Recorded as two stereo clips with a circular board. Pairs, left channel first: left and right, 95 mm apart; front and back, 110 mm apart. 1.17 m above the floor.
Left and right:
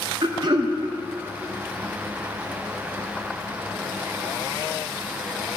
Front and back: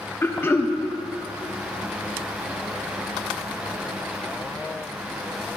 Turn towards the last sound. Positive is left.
turn(degrees=-65)